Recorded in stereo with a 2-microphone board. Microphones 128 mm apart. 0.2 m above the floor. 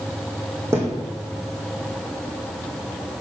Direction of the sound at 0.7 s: 20° right (ahead or behind).